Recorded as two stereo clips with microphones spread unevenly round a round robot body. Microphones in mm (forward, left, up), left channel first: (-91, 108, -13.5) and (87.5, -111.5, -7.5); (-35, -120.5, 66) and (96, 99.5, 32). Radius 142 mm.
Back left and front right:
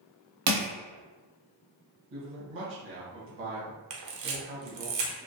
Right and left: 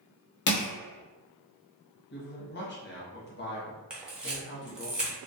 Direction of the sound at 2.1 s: 80° right.